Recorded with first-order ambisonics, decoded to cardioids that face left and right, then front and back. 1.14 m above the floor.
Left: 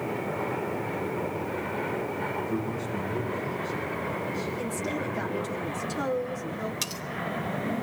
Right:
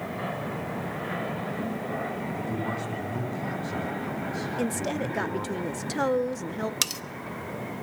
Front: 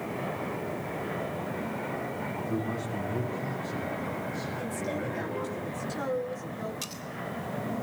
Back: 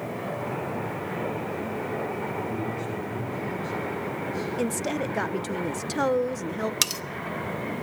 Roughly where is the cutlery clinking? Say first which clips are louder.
Right 5 dB, back 13 dB; behind right.